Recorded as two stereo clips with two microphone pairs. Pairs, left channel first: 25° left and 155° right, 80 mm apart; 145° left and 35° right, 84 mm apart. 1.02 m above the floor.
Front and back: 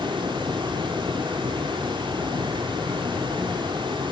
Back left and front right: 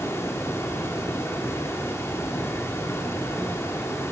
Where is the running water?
160° right, 2.5 m.